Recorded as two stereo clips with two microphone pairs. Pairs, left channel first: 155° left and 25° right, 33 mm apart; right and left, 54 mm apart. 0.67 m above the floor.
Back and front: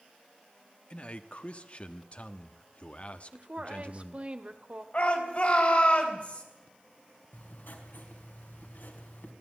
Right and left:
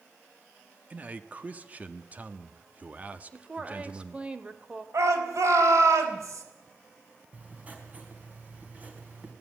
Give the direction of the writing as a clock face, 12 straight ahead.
7 o'clock.